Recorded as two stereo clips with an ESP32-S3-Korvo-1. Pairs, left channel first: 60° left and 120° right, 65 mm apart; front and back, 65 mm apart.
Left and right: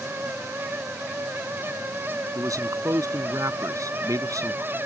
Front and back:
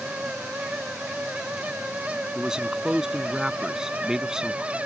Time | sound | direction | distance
2.4 | a man speaking | 100° right | ?